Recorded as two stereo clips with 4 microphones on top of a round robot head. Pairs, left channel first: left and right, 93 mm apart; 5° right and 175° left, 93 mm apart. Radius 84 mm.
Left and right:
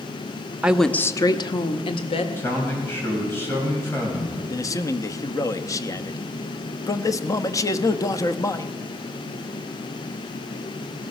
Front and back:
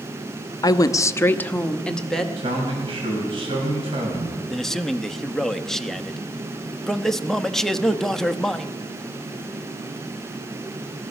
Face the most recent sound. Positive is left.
turn(degrees=75)